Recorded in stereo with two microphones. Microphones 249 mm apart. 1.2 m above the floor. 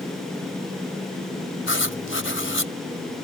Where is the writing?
55° left (ahead or behind).